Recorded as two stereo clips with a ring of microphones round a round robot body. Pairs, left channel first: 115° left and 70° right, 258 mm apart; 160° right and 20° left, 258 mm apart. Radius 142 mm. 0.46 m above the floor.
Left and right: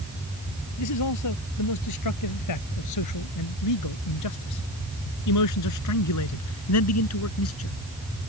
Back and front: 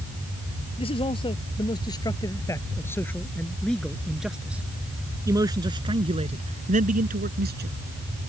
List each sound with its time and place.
0.8 s a man speaking: 130° left; by 7.8 s 75° left